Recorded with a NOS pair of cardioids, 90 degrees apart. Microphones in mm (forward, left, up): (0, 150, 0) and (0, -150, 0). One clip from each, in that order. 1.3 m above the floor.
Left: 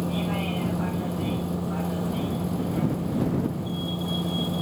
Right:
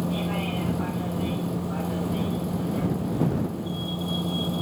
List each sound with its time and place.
0.0 s a vehicle: straight ahead